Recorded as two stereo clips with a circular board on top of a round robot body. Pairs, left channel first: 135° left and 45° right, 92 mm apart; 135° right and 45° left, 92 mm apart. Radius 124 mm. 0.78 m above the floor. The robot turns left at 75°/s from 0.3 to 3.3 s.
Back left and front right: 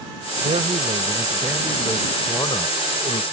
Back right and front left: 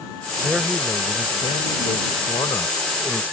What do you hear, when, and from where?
0.4 s a man speaking: 30° right; by 3.3 s 115° left